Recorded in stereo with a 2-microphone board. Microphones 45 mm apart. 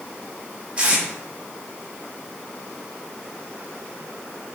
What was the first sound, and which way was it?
Tape being pulled, 25° right (ahead or behind).